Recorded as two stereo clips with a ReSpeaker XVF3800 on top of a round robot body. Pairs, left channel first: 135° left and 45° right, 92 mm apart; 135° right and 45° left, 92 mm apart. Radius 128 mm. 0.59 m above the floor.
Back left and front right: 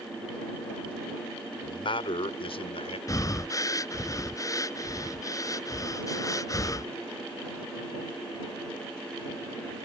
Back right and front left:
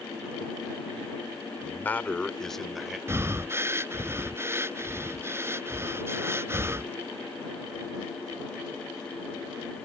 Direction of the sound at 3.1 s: 100° left.